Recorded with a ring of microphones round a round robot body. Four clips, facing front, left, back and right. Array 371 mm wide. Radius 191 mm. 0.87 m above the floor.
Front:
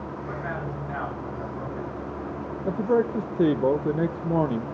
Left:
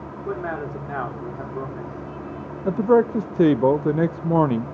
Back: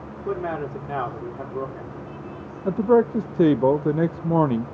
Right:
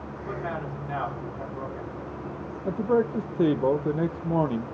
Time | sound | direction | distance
0.2 | a man speaking | 140° left | 3 m
2.6 | a man speaking | 120° left | 0.6 m